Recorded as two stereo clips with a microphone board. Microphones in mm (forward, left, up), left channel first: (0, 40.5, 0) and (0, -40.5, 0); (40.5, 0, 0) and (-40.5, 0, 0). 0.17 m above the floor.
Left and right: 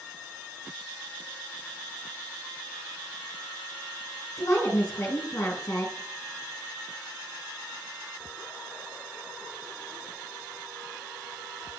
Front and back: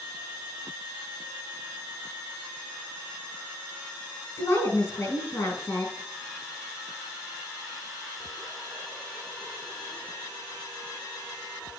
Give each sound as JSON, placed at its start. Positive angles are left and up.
{"t": 4.4, "sound": "a woman speaking", "azimuth_deg": 45, "distance_m": 2.5}